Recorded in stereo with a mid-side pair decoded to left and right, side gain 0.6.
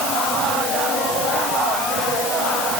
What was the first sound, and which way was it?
Only background noise.